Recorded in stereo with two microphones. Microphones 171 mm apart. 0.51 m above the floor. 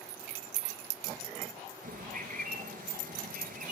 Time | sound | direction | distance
1.8 | a bird | 55° right (ahead or behind) | 1.7 m